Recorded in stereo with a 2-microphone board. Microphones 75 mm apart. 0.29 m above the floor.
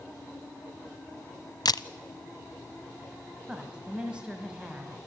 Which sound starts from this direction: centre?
A woman speaking, at 3.5 s.